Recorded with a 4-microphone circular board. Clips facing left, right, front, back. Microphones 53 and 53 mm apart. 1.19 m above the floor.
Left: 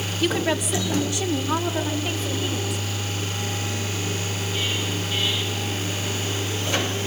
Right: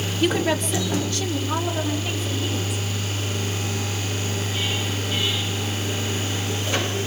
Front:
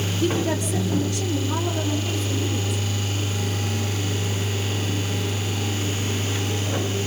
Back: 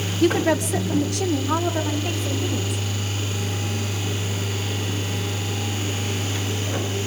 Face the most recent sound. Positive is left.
turn(degrees=155)